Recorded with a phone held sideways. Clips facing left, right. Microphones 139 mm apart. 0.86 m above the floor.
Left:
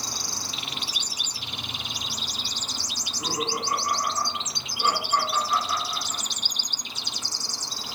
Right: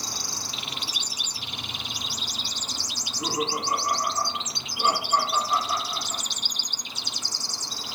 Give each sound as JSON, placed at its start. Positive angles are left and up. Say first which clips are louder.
{"t": 3.0, "sound": "laughter", "louder": "right 2 dB", "side_deg": -30, "distance_m": 2.0}